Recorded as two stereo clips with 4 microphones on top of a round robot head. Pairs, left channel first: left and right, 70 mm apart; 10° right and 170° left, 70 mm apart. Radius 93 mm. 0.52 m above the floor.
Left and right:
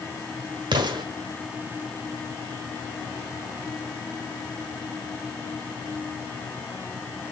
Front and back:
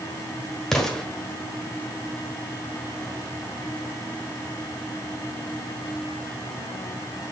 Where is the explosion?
95° right, 1.4 m.